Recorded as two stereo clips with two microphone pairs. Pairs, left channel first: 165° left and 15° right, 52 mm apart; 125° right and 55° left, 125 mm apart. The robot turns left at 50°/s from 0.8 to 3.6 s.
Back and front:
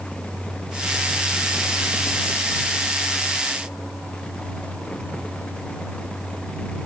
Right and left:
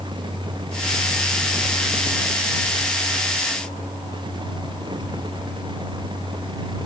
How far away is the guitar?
No guitar in this recording.